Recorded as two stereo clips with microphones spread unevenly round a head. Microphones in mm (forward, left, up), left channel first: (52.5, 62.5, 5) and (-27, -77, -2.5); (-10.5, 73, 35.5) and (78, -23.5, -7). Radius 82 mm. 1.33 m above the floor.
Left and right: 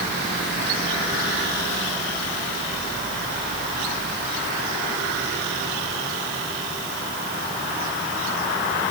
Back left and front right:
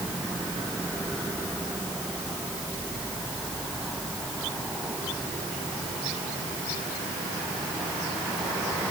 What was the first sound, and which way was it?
Only background noise.